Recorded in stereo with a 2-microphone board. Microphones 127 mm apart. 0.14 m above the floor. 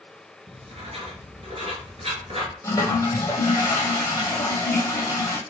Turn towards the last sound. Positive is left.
turn(degrees=25)  # may be behind; listen again after turning